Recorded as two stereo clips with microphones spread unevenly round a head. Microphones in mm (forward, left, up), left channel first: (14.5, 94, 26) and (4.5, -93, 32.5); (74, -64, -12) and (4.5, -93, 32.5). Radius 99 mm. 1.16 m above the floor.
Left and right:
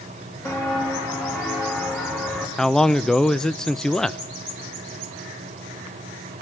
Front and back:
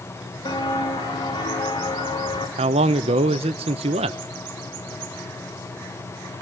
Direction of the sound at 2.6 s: 170° left.